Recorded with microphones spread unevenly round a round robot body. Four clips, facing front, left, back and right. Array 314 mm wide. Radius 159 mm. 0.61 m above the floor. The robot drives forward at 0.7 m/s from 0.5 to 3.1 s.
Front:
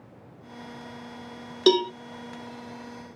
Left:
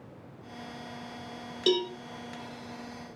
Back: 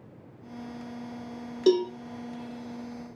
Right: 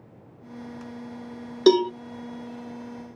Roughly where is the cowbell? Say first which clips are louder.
Right 10 dB, front 1 dB; ahead right.